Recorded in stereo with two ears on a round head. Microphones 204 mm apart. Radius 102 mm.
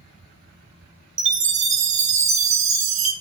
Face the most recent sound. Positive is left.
turn(degrees=-30)  # may be behind; listen again after turning